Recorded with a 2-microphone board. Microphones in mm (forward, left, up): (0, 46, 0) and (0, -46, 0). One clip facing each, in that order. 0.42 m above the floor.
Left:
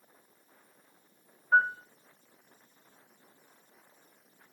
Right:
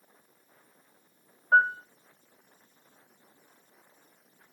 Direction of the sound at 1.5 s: 60° right (ahead or behind).